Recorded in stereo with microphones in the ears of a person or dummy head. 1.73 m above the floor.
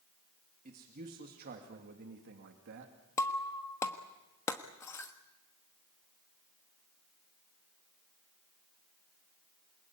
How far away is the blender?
I don't hear a blender.